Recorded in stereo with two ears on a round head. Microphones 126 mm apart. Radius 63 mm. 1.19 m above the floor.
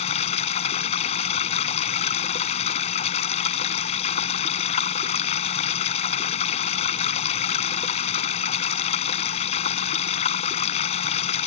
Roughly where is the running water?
Left.